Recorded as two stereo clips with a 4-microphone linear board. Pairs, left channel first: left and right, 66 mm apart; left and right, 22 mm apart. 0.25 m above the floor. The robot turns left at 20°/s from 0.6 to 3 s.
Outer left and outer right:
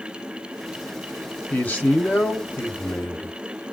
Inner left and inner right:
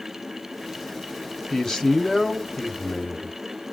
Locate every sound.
1.5 s a man speaking: 140° left, 1.1 m; by 3.4 s 110° left, 1.1 m